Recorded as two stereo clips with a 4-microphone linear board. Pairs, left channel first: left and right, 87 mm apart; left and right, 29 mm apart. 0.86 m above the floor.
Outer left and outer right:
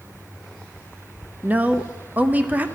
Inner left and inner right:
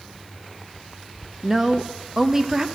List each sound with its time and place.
1.4 s a woman speaking: 20° right (ahead or behind), 0.6 m